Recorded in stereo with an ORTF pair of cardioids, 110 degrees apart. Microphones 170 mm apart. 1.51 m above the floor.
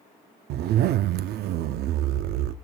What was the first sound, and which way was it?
A zipper, 70° right.